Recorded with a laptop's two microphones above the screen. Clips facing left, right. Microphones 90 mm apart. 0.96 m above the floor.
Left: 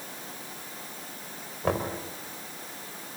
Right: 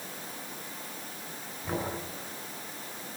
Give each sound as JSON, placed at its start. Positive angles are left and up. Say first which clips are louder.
{"t": 1.6, "sound": "knocking", "louder": "left 5 dB", "side_deg": 75, "distance_m": 4.0}